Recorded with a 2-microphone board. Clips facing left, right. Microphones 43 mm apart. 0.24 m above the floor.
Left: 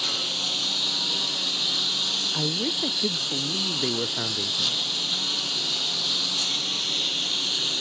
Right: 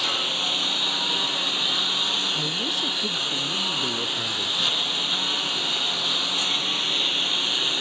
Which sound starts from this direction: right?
A lawn mower, at 0.0 s.